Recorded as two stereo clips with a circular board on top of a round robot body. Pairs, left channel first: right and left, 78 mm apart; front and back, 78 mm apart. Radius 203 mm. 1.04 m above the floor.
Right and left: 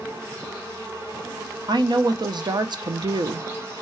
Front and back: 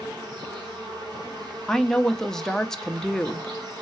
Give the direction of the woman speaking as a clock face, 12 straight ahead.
9 o'clock.